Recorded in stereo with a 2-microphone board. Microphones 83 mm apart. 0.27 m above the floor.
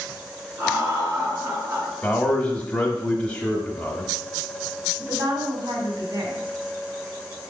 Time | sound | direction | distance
0.6 | laughter | 25° right (ahead or behind) | 4 m
2.0 | a man speaking | 15° left (ahead or behind) | 1.1 m
5.0 | a woman speaking | 40° right (ahead or behind) | 2.5 m